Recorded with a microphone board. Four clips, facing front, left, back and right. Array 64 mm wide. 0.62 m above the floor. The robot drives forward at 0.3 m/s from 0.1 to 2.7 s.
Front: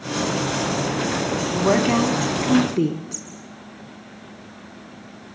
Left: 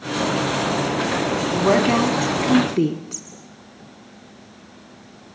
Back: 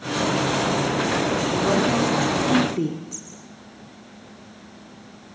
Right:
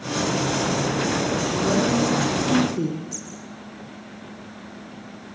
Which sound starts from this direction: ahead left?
A woman speaking, at 1.5 s.